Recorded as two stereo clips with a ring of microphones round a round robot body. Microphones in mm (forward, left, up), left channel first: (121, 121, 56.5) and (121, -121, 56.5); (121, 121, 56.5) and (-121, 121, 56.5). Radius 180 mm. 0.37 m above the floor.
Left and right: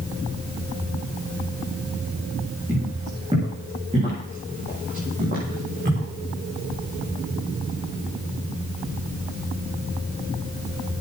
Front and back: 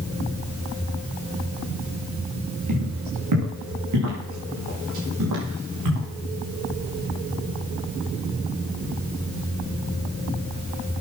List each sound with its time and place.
2.7 s footsteps: 170° right, 8.5 m; by 6.1 s 155° right, 8.5 m